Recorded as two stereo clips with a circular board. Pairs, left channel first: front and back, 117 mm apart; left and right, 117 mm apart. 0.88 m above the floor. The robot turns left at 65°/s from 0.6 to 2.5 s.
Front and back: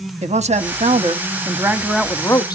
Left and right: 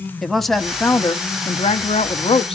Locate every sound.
0.2 s a woman speaking: straight behind, 0.7 m; by 2.6 s 55° left, 0.7 m